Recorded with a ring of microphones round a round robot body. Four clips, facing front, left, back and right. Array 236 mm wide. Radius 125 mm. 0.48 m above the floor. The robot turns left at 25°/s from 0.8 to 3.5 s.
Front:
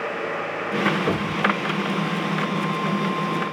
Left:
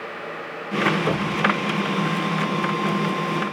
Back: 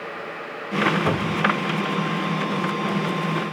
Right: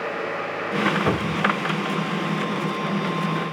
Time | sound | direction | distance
1.1 | a cupboard door | 140° right | 1.1 m